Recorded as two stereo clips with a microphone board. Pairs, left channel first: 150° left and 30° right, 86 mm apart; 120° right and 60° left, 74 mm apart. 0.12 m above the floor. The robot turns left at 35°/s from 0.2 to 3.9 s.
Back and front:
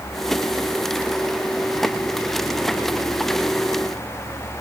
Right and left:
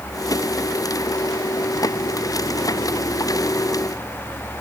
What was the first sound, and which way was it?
Only background noise.